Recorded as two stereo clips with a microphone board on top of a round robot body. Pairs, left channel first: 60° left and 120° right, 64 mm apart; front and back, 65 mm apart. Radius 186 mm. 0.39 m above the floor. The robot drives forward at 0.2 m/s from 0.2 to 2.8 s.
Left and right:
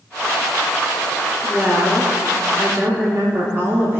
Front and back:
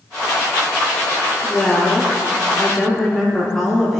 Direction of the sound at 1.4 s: 65° right.